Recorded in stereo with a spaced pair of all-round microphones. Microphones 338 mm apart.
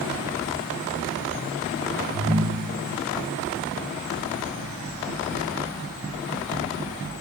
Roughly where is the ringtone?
Right.